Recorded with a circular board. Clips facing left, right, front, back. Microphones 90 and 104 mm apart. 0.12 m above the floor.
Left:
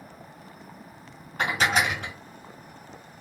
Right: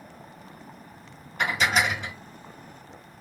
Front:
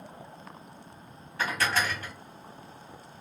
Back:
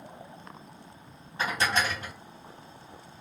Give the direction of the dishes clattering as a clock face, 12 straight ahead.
8 o'clock.